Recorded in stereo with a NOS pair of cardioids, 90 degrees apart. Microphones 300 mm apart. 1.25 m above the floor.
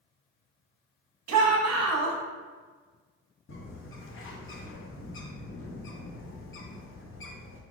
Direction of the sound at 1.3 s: 70° right.